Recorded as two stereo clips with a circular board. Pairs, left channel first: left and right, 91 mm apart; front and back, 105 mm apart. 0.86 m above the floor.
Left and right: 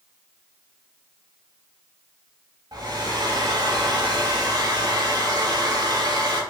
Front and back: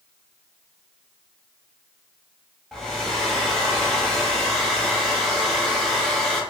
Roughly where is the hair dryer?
Right.